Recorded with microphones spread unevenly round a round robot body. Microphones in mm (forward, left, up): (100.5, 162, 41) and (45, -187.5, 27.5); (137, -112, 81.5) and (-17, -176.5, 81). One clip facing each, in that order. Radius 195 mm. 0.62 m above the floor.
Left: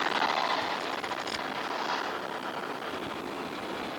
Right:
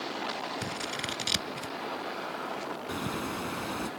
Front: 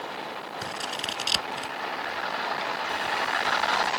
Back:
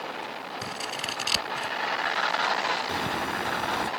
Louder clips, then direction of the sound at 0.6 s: Left 1 dB, front 1 dB; 75° right.